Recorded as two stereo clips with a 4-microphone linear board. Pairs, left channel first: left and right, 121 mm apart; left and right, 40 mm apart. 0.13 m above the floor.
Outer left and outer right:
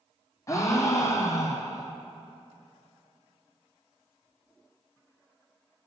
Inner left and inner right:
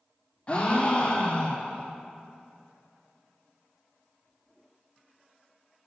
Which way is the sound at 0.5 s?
30° left (ahead or behind).